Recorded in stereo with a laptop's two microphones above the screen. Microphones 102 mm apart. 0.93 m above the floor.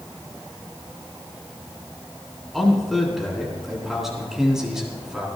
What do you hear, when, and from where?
2.5 s a man speaking: centre (ahead or behind), 9 m; by 5.3 s 10° right (ahead or behind), 9 m